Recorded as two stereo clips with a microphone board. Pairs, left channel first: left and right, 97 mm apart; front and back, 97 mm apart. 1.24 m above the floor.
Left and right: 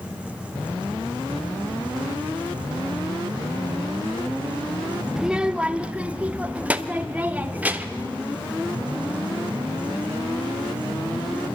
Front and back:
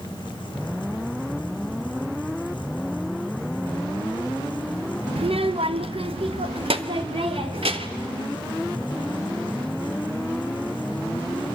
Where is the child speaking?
175° right, 0.8 m; by 8.1 s 165° right, 3 m.